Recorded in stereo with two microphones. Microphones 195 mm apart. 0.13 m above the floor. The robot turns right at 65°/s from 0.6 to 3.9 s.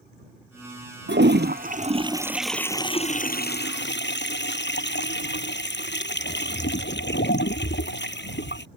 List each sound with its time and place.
1.1 s a toilet flushing: 90° right; by 8.7 s 95° left